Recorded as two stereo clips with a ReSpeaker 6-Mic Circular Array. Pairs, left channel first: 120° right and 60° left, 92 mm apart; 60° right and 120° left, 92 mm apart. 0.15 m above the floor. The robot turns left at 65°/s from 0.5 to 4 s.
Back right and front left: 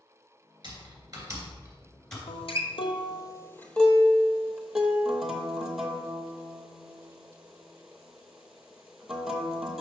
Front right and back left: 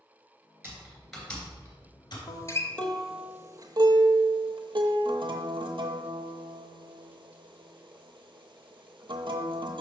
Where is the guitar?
100° right, 0.7 m; by 9.8 s 150° left, 0.7 m.